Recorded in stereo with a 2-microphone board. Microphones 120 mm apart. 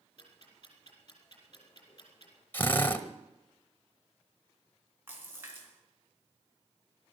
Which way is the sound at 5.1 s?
20° right (ahead or behind).